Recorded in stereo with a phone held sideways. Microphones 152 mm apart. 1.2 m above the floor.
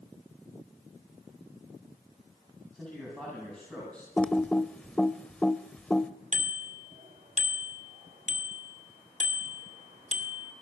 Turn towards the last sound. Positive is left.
turn(degrees=-55)  # may be behind; listen again after turning